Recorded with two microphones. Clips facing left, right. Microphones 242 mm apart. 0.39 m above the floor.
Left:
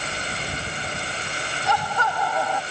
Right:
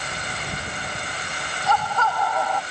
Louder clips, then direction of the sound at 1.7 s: Right 2 dB; 15° left (ahead or behind).